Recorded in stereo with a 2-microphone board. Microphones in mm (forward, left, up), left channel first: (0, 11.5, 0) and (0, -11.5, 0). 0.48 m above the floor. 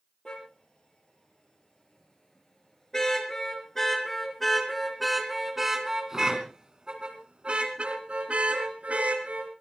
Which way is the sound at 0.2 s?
35° left (ahead or behind).